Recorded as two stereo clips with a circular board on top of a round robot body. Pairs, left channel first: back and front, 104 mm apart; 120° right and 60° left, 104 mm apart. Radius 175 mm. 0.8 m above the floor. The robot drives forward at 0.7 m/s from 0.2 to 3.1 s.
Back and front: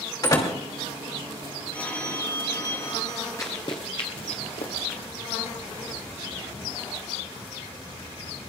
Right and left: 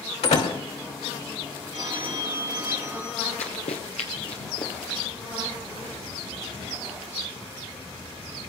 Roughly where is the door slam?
Behind right.